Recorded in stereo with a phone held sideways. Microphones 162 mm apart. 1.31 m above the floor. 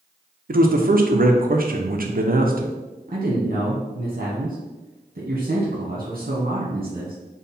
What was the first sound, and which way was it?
A man speaking, 60° right (ahead or behind).